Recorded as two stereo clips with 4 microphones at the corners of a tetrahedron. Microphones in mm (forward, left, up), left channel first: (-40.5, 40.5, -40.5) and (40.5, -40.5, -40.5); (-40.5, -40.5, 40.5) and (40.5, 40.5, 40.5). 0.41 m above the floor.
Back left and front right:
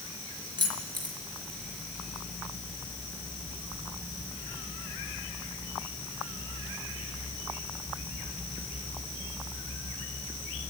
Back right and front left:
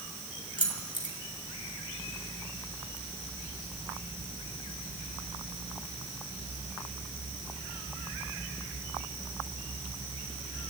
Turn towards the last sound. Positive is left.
turn(degrees=-90)